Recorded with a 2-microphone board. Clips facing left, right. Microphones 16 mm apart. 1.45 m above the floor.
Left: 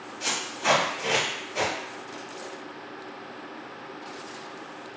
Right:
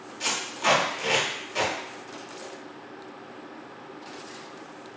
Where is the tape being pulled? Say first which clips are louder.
Right 1 dB; 35° right (ahead or behind), 1.1 m.